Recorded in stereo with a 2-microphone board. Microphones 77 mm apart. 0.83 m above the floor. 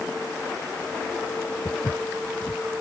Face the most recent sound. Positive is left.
turn(degrees=15)  # may be behind; listen again after turning